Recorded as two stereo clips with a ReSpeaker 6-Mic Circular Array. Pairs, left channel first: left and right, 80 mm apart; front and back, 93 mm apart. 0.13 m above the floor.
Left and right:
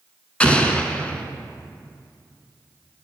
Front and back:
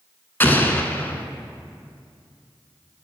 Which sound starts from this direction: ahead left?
An explosion, at 0.4 s.